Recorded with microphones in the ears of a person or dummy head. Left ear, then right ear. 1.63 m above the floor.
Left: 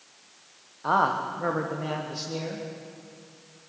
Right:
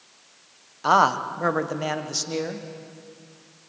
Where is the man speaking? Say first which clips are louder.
Right 5 dB; 80° right, 1.2 m; by 2.7 s 60° right (ahead or behind), 2 m.